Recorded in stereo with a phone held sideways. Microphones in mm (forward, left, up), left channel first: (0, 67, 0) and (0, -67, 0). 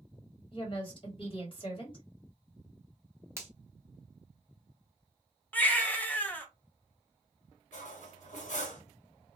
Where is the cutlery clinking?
65° left (ahead or behind), 1.1 m.